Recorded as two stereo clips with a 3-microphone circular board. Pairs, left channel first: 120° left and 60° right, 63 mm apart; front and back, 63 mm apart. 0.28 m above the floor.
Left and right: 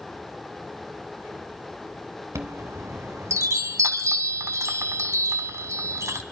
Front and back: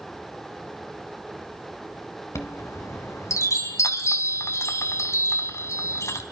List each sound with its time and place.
2.4 s a chime: 30° right, 0.9 m